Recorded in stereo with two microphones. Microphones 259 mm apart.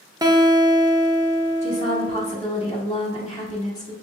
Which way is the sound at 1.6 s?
25° left (ahead or behind).